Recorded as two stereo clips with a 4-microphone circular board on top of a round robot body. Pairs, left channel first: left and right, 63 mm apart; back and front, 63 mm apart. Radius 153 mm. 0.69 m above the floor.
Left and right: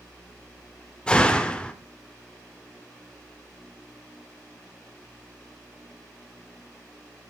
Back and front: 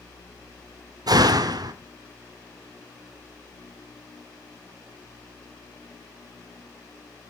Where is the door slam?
15° left, 1.9 m.